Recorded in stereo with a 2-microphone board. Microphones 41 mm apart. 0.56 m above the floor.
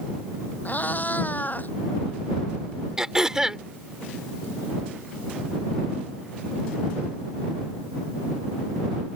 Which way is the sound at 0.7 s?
50° left (ahead or behind).